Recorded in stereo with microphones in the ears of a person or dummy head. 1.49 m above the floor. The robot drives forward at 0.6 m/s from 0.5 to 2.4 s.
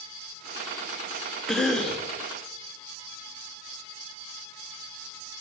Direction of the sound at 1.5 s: Centre (ahead or behind).